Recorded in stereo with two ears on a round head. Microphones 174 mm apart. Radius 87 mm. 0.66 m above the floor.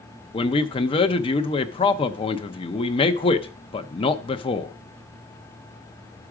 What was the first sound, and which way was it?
A man speaking, 25° left (ahead or behind).